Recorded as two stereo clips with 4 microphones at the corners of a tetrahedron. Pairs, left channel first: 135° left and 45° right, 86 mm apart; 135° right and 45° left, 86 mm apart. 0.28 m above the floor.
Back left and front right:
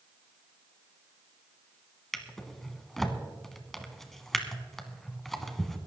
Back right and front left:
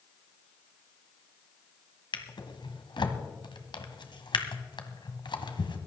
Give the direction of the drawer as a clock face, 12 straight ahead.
5 o'clock.